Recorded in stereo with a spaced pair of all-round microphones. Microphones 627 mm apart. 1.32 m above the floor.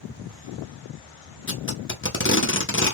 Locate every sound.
1.5 s tape being pulled: 20° left (ahead or behind), 0.6 m